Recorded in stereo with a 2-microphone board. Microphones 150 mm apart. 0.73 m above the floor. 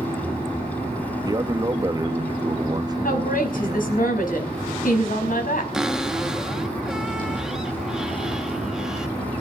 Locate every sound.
1.2 s a man speaking: 25° right (ahead or behind), 0.9 m
3.0 s a woman speaking: 70° left (ahead or behind), 5 m
5.7 s a cupboard door: 5° right (ahead or behind), 1.0 m